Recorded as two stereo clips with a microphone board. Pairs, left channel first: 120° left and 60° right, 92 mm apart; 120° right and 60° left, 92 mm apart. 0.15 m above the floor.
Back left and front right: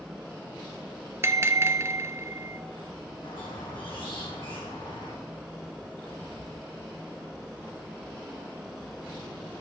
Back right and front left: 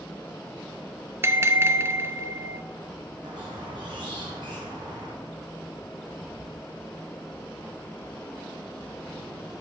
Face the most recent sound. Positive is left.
turn(degrees=95)